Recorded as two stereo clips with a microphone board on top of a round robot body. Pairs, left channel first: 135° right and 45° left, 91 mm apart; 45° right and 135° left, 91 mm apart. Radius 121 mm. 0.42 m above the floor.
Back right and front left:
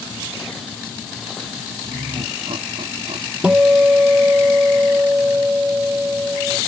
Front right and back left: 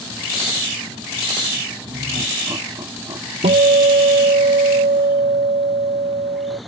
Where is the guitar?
125° left.